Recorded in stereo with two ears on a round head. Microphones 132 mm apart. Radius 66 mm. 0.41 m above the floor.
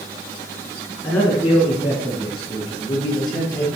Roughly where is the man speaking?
Centre.